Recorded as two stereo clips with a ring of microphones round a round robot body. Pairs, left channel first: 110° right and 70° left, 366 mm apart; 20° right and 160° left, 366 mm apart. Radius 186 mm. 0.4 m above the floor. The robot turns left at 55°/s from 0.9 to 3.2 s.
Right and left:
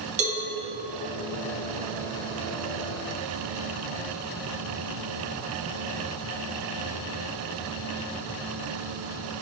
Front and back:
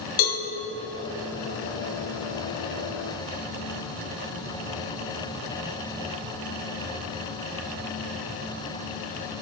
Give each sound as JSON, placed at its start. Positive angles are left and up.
{"t": 0.2, "sound": "a cowbell", "azimuth_deg": -5, "distance_m": 3.0}